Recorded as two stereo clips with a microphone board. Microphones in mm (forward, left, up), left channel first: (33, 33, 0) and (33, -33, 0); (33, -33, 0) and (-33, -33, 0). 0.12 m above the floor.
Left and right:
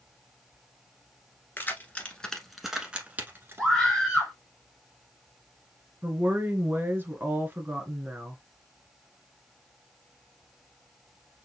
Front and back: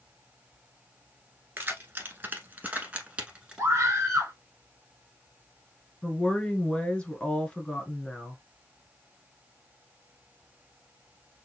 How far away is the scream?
About 1.6 m.